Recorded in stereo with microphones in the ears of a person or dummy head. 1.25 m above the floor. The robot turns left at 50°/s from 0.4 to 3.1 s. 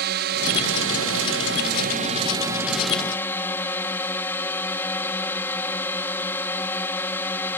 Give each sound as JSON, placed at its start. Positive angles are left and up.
{"t": 0.0, "sound": "a drone", "azimuth_deg": -60}